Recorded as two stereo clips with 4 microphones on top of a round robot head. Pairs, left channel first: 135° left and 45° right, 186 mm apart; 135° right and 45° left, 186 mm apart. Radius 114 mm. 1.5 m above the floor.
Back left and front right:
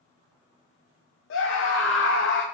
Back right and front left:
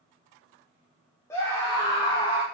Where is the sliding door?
I don't hear a sliding door.